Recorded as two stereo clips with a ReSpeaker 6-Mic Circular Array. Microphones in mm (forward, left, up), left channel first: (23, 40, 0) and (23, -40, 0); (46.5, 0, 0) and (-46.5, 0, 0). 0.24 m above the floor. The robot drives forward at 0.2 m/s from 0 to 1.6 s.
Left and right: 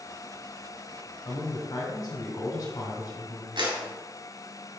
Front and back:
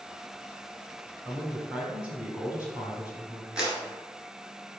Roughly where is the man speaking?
Left.